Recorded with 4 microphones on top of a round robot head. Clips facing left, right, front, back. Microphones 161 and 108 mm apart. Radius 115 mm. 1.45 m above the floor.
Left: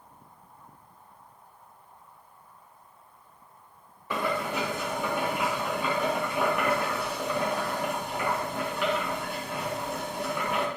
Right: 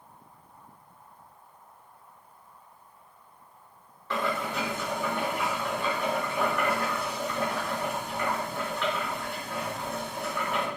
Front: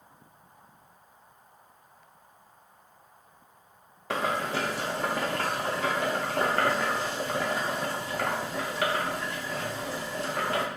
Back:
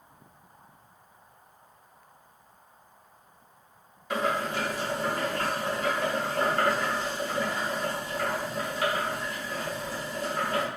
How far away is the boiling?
About 0.6 m.